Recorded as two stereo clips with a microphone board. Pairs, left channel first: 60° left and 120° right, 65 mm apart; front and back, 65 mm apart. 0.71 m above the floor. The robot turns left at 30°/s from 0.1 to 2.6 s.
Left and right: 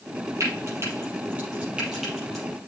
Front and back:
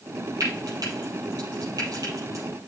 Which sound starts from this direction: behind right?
Frying, at 0.4 s.